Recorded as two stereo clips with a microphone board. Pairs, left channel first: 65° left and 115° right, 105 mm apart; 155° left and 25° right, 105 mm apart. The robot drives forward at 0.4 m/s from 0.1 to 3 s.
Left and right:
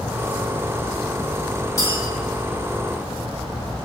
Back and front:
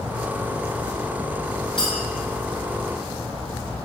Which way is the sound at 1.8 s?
80° left.